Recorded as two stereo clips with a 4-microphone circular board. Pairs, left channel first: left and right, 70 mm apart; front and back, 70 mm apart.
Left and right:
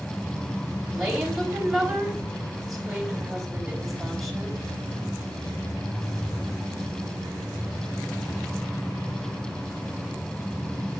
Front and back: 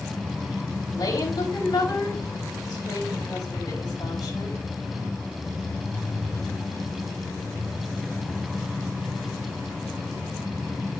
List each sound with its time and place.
0.9 s a woman speaking: 5° right, 4.5 m